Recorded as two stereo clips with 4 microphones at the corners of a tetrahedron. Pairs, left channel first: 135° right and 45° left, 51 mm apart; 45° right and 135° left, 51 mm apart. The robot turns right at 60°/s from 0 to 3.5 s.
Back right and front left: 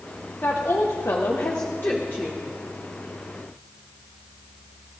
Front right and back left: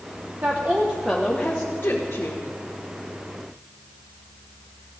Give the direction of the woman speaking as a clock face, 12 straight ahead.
6 o'clock.